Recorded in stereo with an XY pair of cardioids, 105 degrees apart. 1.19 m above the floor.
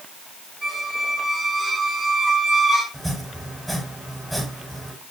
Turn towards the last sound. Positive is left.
turn(degrees=-5)